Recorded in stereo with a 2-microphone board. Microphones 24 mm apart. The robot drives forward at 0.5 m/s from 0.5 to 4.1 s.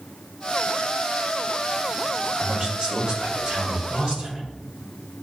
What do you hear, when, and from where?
2.4 s a man speaking: 30° right (ahead or behind), 3.5 m; by 4.4 s 25° right (ahead or behind), 4.5 m